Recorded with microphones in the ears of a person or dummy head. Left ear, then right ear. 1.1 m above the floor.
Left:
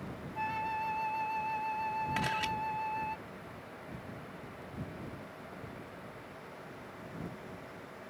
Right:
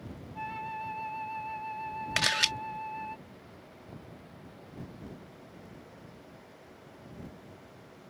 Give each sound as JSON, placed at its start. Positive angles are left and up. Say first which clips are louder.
{"t": 0.3, "sound": "a flute", "louder": "left 2 dB", "side_deg": 0}
{"t": 2.2, "sound": "a camera shutter", "louder": "right 11 dB", "side_deg": -40}